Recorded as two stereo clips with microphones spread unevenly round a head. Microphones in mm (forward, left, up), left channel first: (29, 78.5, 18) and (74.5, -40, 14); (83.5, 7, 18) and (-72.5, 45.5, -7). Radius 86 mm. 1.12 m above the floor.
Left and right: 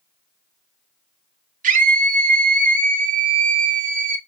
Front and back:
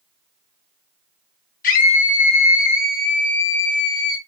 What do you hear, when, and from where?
1.6 s a scream: 60° right, 2 m